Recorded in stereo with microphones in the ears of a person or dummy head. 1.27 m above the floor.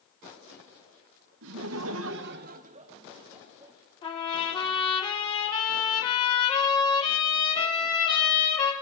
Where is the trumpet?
30° left (ahead or behind), 5 m.